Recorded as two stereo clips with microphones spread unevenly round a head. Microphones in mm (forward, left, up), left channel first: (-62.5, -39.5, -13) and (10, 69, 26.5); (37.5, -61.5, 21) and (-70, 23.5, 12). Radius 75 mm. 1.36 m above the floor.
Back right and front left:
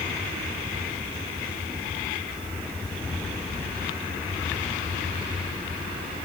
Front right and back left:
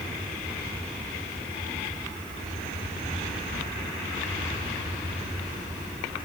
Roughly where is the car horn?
I don't hear a car horn.